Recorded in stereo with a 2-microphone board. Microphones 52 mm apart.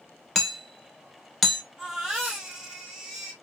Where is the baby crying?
10° right (ahead or behind), 1.6 m.